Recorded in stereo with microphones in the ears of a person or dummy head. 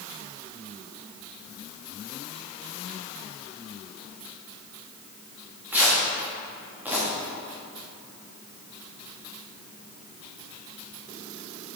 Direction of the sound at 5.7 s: 10° right (ahead or behind).